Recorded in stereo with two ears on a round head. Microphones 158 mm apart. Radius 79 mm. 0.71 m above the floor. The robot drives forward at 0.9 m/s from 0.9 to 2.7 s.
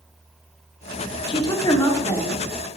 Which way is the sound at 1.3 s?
30° left (ahead or behind).